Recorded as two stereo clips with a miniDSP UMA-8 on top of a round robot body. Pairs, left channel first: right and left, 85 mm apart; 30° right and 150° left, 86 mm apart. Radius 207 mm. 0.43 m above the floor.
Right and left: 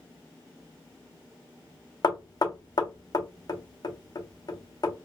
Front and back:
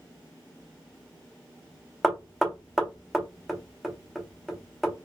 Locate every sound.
2.0 s knocking: 125° right, 0.9 m